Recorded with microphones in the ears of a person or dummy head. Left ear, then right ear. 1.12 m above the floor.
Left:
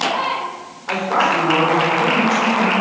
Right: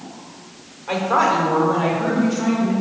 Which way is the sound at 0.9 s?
15° right (ahead or behind).